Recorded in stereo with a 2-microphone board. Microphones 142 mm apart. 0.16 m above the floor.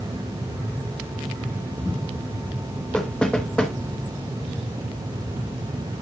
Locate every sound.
2.9 s knocking: 10° left (ahead or behind), 1.6 m